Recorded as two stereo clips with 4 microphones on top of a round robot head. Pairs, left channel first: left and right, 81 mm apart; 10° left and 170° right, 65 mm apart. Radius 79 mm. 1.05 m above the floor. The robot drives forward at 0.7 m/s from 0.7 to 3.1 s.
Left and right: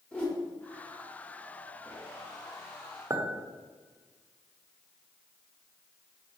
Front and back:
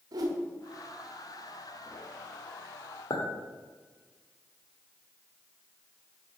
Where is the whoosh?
165° left, 1.1 m.